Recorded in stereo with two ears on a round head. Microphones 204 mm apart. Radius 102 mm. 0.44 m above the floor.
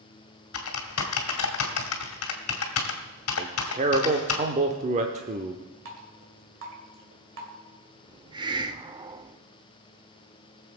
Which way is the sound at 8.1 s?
20° right (ahead or behind).